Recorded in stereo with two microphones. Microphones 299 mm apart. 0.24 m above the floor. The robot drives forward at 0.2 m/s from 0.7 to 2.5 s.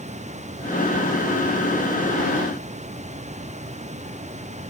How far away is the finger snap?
I don't hear a finger snap.